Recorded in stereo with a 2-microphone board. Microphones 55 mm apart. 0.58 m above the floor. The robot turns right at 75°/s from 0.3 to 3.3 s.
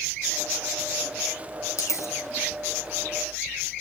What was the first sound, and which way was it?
A dropped coin, 75° left (ahead or behind).